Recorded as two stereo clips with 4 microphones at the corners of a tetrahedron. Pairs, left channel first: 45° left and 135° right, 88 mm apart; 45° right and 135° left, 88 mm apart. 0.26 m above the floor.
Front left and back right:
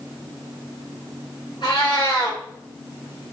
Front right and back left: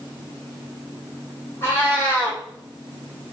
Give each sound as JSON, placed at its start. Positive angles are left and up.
{"t": 1.6, "sound": "a cat meowing", "azimuth_deg": 20, "distance_m": 1.6}